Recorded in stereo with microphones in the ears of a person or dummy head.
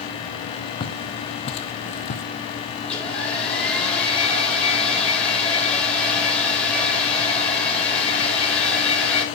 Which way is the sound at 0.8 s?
25° left (ahead or behind).